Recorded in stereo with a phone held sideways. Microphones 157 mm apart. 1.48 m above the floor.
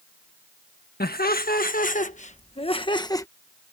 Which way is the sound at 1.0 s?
70° left (ahead or behind).